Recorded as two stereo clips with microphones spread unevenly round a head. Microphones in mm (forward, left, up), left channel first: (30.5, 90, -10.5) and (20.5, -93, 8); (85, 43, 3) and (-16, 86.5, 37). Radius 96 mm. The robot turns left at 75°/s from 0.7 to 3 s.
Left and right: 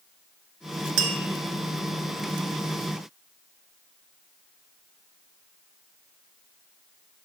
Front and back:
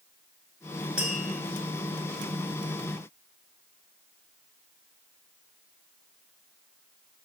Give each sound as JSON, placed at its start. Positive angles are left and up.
{"t": 1.0, "sound": "tapping", "azimuth_deg": -110, "distance_m": 1.0}